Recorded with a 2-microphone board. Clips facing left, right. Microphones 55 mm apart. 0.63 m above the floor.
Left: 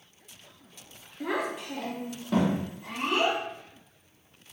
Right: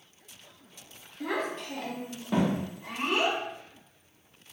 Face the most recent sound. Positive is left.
turn(degrees=-10)  # may be behind; listen again after turning